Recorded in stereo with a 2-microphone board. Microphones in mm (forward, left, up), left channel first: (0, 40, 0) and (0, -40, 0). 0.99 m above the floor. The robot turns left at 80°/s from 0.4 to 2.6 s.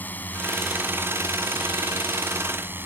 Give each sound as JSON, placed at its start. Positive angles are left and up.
{"t": 0.0, "sound": "a drone", "azimuth_deg": 20}